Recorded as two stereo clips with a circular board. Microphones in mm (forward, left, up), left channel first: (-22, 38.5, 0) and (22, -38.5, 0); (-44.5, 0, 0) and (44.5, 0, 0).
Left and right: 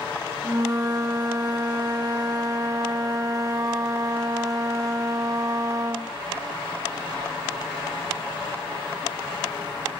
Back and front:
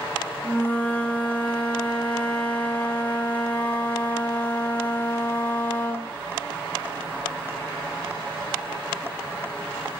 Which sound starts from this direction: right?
A flute, at 0.4 s.